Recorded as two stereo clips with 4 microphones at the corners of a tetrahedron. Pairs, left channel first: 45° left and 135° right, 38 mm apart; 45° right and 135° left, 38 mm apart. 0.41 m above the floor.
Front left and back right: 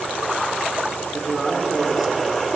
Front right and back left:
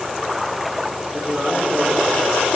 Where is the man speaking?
145° left, 1.4 m.